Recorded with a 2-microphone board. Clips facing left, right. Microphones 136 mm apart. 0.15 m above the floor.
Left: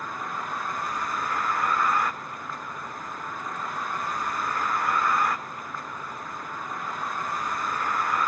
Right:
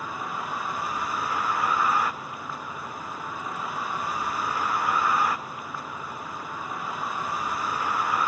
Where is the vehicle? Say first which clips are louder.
Right 1 dB; 5° right (ahead or behind).